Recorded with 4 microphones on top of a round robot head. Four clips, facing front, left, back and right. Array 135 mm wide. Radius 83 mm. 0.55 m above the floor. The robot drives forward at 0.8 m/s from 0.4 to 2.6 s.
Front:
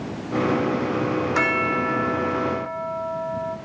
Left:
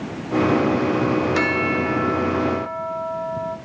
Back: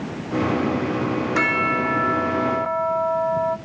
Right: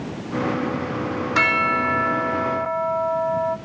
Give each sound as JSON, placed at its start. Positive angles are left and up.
{"t": 1.4, "sound": "a bell", "azimuth_deg": -70, "distance_m": 1.4}